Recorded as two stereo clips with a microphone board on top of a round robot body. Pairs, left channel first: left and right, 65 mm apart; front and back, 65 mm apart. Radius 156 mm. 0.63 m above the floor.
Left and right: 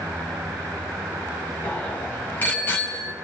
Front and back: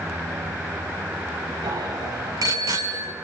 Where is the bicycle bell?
160° left, 4.5 m; by 3.1 s 150° left, 5 m.